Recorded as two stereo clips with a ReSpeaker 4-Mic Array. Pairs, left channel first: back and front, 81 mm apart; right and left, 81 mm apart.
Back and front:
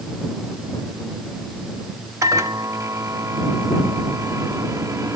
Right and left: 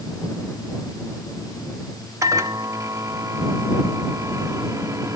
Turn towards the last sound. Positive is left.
turn(degrees=45)